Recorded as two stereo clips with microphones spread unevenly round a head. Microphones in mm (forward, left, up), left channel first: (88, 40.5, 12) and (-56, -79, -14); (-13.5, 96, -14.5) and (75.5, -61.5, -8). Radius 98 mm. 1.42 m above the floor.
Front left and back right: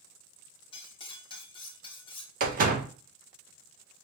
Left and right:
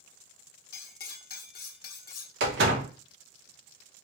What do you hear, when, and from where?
0.7 s cutlery clinking: 95° left, 0.8 m
2.4 s a door slam: 90° right, 1.1 m